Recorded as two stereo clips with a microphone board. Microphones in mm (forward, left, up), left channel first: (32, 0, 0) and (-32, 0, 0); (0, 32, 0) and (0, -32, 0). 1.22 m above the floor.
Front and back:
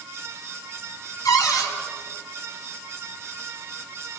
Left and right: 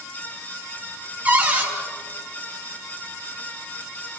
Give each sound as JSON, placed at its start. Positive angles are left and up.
{"t": 1.2, "sound": "a cupboard door", "azimuth_deg": -20, "distance_m": 4.5}